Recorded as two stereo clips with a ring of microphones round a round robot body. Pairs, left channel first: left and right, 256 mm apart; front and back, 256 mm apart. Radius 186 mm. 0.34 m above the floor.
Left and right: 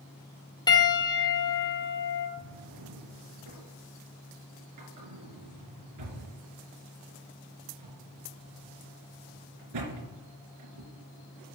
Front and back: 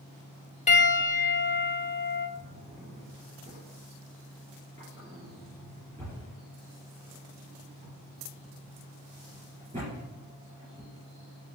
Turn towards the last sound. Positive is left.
turn(degrees=-100)